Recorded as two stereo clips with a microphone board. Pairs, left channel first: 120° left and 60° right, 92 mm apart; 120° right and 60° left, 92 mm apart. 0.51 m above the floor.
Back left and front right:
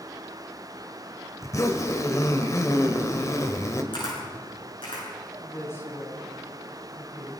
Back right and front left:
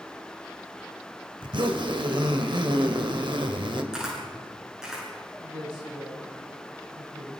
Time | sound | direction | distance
1.4 | a zipper | 70° left | 2 m
3.9 | a camera shutter | 140° left | 8 m
5.4 | a woman speaking | 60° left | 8.5 m